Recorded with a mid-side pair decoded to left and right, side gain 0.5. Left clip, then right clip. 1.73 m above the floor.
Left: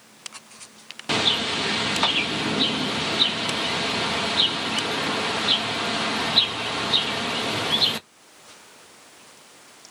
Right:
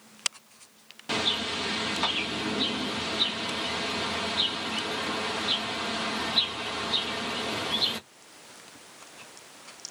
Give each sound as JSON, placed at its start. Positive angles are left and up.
{"t": 1.1, "sound": "a bird", "azimuth_deg": 40, "distance_m": 0.7}